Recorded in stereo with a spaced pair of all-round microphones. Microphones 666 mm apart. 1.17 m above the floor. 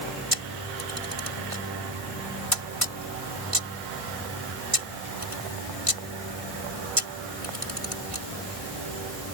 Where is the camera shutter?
50° right (ahead or behind).